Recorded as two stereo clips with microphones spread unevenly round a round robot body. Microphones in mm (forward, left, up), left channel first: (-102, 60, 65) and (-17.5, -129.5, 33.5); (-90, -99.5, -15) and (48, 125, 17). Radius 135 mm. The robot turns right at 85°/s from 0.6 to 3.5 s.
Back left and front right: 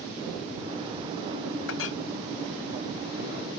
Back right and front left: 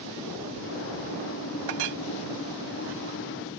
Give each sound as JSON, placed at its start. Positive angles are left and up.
{"t": 1.7, "sound": "a clink", "azimuth_deg": 70}